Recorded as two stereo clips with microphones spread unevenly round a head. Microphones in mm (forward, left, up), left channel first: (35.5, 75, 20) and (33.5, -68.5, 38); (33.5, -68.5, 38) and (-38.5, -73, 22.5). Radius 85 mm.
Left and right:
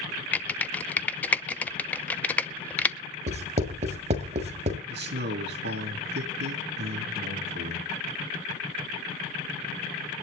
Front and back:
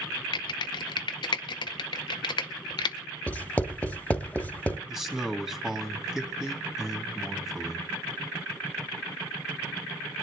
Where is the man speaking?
95° right, 3 m.